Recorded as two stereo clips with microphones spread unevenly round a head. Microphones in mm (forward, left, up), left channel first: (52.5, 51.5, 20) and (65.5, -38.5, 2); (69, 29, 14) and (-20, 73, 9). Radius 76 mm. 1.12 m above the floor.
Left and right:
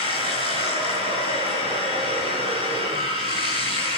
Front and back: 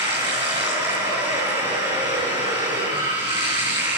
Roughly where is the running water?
Behind right.